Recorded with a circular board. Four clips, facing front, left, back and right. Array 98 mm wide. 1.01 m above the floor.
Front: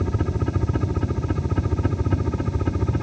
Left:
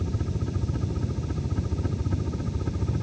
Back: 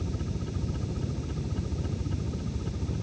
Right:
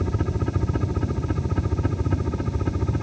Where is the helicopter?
35° right; by 3.0 s 25° right.